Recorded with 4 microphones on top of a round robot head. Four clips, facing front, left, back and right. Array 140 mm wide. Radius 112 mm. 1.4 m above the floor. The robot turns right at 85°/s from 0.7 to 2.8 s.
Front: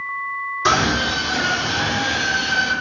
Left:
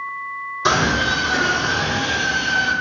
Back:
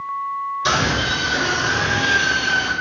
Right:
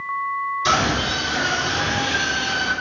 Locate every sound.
0.7 s a scream: 55° left, 4.5 m; by 2.7 s 135° right, 4.5 m